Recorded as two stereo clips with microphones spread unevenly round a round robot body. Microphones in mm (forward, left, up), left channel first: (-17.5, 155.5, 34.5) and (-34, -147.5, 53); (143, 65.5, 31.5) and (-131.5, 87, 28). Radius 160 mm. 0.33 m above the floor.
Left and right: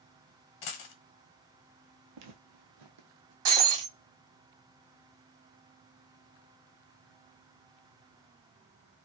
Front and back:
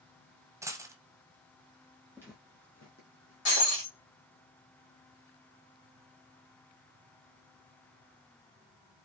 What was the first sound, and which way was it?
A dropped coin, 95° left.